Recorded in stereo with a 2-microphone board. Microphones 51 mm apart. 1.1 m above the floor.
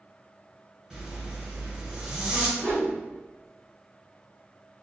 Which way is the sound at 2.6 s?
70° right (ahead or behind).